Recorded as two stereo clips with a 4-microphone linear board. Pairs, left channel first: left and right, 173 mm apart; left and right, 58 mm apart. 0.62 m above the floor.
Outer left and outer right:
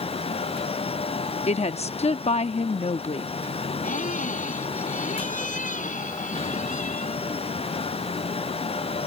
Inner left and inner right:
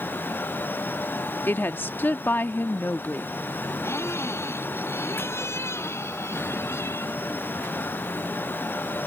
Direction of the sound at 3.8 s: 50° left (ahead or behind).